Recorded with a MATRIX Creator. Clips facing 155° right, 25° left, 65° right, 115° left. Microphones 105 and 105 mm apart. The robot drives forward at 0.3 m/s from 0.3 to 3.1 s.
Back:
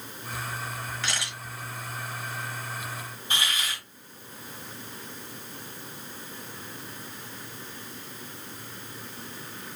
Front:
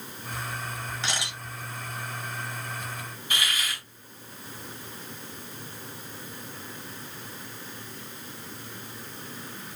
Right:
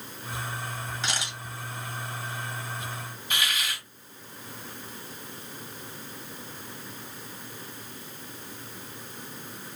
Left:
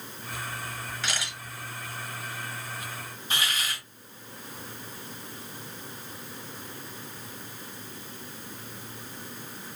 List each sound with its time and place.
1.0 s a camera shutter: 20° right, 1.3 m; by 1.4 s 25° right, 1.2 m
3.3 s a hiss: 155° left, 2.5 m